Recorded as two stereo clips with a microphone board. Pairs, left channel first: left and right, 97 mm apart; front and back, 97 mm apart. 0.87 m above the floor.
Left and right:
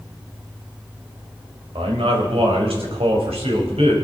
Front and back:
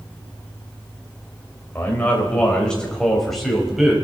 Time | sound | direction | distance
1.8 | a man speaking | 70° right | 4 m